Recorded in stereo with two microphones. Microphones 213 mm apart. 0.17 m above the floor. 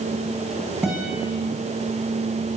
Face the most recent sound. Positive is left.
turn(degrees=-5)  # may be behind; listen again after turning